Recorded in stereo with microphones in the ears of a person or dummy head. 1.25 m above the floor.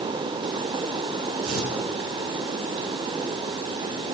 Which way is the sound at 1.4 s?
85° right.